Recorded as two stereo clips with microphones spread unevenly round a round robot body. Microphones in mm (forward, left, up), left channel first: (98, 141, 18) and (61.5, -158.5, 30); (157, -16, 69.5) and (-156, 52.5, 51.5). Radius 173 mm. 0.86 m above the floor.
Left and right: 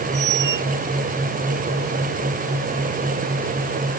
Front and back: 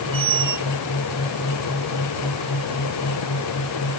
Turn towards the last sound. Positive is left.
turn(degrees=-140)